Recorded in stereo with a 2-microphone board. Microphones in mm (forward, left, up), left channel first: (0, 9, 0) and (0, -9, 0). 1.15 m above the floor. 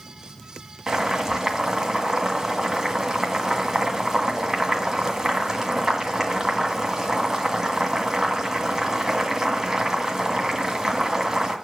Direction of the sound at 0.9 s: 25° right (ahead or behind).